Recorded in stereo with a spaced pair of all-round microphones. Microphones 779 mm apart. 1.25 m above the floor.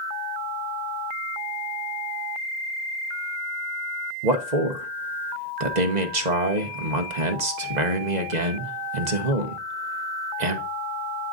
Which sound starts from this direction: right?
A man speaking, at 4.2 s.